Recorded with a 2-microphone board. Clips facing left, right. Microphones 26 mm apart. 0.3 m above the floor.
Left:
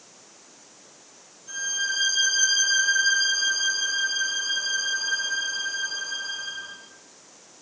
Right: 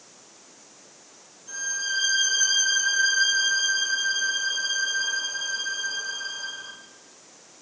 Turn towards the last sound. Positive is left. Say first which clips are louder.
# left 1 dB
turn(degrees=10)  # may be behind; listen again after turning